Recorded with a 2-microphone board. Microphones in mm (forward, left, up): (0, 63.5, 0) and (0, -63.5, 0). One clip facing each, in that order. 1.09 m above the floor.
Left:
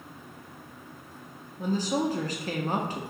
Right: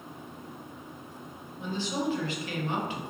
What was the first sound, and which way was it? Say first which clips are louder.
A woman speaking: left 4 dB; 40° left (ahead or behind).